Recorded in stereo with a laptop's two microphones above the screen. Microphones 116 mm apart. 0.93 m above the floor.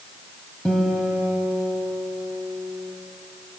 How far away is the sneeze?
No sneeze in this recording.